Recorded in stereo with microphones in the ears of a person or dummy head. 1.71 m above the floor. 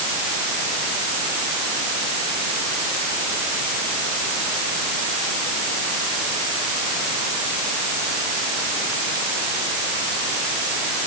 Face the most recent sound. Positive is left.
No sound to turn to.